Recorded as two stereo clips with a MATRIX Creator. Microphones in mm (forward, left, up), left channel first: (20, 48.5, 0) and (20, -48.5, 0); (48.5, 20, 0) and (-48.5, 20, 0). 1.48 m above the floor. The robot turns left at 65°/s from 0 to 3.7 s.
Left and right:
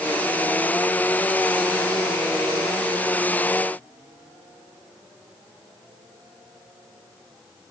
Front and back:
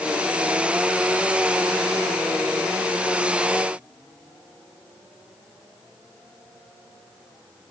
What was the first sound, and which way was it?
Only background noise.